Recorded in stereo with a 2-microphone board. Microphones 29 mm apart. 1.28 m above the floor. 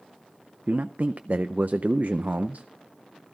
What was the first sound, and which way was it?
A man speaking, 65° right (ahead or behind).